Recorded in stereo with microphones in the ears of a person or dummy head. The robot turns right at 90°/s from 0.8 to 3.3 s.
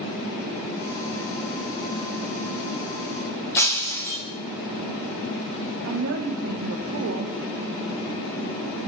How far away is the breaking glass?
About 1.3 m.